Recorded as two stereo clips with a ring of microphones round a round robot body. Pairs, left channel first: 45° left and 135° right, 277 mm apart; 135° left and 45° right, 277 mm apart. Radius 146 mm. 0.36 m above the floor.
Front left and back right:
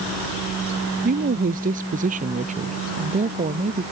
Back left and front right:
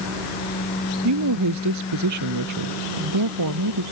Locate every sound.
1.0 s a woman speaking: 75° right; by 3.8 s 65° right